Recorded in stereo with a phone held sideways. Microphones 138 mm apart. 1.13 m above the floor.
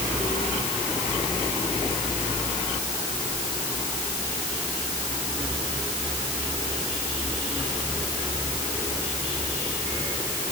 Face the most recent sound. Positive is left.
No sound to turn to.